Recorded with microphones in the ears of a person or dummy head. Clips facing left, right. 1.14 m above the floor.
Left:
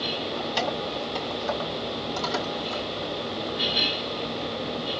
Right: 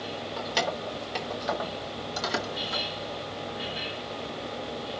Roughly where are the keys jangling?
Right.